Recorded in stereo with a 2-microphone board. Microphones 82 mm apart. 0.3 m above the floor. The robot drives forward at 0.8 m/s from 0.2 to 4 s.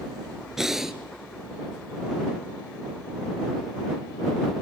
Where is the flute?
No flute in this recording.